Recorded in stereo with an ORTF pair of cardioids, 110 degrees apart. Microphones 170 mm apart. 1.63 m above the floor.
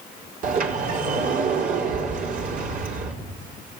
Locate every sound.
0.4 s a sliding door: 55° right, 4 m